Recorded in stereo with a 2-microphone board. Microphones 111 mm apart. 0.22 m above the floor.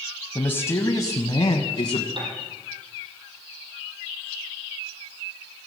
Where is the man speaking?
15° left (ahead or behind), 1.0 m; by 2.1 s 45° left (ahead or behind), 1.5 m.